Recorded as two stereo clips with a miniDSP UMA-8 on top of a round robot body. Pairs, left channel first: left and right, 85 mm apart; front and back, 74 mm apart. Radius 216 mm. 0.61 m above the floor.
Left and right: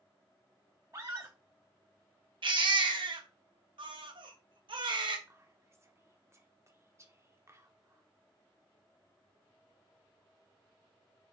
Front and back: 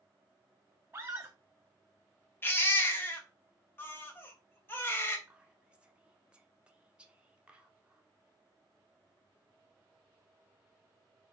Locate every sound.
0.9 s a scream: 130° right, 0.8 m
2.4 s a baby crying: 65° right, 0.9 m
5.3 s whispering: 115° right, 1.4 m